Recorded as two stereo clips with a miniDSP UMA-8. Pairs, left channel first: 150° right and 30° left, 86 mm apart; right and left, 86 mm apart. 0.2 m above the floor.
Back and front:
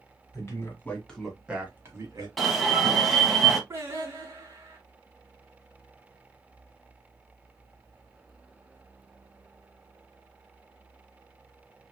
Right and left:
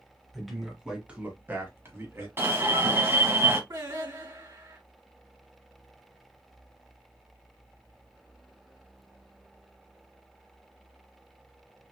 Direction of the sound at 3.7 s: 75° left.